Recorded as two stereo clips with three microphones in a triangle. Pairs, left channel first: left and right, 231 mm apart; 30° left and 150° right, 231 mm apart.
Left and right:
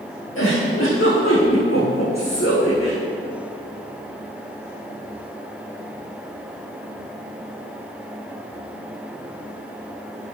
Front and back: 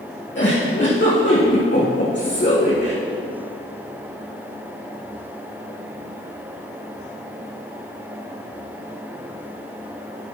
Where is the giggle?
65° left, 3.5 m.